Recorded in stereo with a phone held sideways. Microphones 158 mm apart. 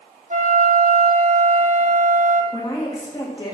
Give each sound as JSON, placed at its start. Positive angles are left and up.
{"t": 0.3, "sound": "a flute", "side_deg": -50, "distance_m": 0.8}
{"t": 2.5, "sound": "a woman speaking", "side_deg": 25, "distance_m": 2.0}